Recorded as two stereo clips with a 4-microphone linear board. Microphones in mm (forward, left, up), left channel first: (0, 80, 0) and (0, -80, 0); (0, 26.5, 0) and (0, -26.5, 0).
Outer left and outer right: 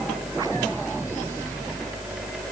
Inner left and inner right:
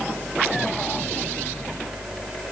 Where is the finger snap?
No finger snap in this recording.